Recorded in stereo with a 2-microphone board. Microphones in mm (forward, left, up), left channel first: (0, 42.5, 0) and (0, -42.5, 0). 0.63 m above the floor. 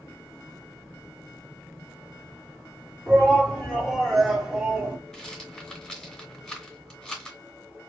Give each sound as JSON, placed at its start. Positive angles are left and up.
{"t": 3.1, "sound": "a shout", "side_deg": 10, "distance_m": 1.9}
{"t": 5.1, "sound": "a rattle", "side_deg": 10, "distance_m": 2.0}